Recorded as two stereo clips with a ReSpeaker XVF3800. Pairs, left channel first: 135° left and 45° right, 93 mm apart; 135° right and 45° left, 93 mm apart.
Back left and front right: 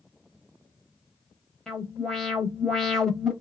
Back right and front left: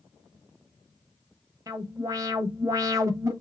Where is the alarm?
55° left, 1.0 m.